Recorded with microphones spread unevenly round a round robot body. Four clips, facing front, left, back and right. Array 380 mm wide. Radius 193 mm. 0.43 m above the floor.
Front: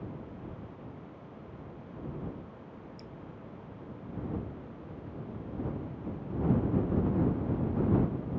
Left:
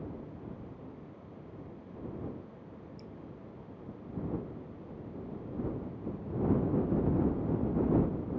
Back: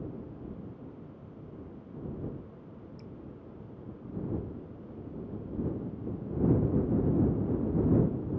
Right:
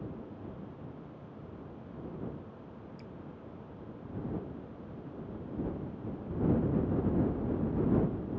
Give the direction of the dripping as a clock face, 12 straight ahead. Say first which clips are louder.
Even, even; 3 o'clock.